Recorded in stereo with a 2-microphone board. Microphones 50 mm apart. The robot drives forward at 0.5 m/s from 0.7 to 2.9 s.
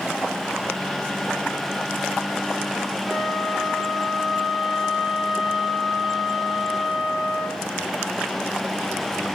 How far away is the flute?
About 5.5 m.